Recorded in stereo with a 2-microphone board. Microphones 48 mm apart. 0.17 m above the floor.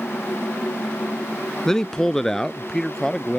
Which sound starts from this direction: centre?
A man speaking, at 1.6 s.